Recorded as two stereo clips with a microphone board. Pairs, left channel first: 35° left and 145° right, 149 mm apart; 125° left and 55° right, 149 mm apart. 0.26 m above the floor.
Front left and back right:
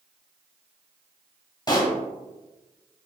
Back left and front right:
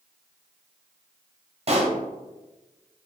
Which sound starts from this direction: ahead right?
A pop, at 1.7 s.